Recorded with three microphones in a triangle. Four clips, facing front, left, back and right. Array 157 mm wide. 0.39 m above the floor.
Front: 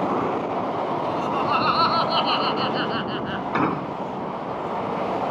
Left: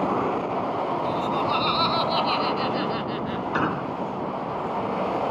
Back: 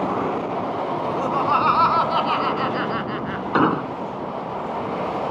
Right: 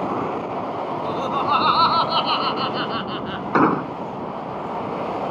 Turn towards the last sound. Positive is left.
turn(degrees=-115)